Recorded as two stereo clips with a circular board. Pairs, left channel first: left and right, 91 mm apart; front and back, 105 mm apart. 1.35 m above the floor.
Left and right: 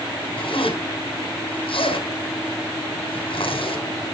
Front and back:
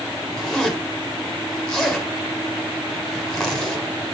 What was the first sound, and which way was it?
A zipper, 90° left.